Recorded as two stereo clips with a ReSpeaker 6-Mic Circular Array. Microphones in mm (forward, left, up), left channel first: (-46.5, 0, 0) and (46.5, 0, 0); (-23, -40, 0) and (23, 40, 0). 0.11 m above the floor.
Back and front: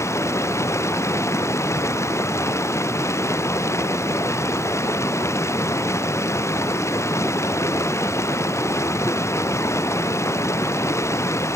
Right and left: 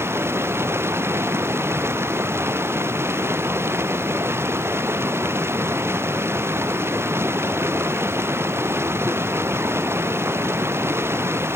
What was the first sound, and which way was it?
Running water, 120° left.